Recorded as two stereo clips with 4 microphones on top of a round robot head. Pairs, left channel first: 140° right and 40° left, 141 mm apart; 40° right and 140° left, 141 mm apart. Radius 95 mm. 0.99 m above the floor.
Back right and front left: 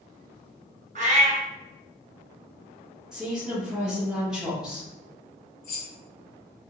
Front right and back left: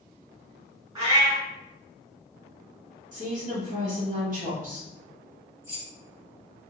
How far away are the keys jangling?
About 1.4 m.